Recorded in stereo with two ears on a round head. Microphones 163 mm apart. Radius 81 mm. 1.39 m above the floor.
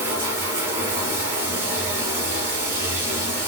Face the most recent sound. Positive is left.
turn(degrees=-15)  # may be behind; listen again after turning